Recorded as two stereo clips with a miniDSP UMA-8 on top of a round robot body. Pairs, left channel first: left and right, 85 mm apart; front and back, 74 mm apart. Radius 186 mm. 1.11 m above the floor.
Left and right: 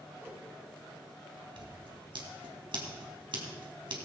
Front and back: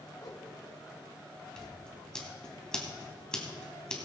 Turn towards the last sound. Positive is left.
turn(degrees=-80)